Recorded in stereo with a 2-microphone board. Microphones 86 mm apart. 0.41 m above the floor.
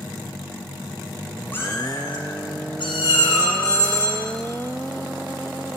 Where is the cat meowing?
25° left (ahead or behind), 1.1 m; by 3.6 s 70° left (ahead or behind), 3 m.